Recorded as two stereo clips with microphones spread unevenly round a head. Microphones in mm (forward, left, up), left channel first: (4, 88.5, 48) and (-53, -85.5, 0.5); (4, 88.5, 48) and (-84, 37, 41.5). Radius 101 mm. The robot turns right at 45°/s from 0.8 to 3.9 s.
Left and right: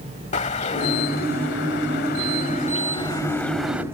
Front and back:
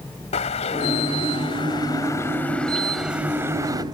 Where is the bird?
25° left; by 3.8 s 160° left.